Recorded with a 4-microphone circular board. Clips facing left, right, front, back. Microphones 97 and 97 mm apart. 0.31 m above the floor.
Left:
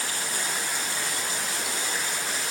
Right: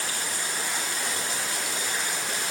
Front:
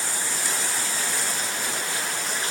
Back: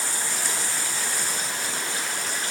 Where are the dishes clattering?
I don't hear dishes clattering.